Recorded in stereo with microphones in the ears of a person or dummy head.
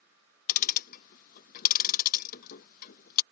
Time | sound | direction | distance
0.5 | ticking | 50° left (ahead or behind) | ?